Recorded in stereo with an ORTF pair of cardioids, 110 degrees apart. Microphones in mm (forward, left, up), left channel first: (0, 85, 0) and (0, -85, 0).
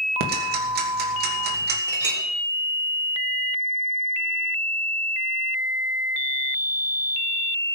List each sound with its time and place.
0.2 s ticking: 65° right, 2.5 m
1.9 s a clink: 45° right, 4 m